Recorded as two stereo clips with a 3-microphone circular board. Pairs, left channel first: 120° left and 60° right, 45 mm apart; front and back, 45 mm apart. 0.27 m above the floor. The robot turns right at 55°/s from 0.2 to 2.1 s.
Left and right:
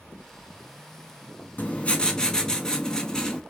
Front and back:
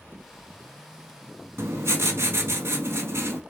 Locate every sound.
1.6 s writing: 165° left, 0.6 m; by 3.4 s 170° right, 0.6 m